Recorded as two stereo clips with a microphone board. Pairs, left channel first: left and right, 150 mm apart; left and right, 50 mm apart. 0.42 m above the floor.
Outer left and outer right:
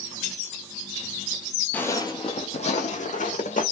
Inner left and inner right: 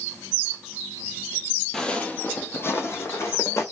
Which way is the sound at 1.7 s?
10° left (ahead or behind).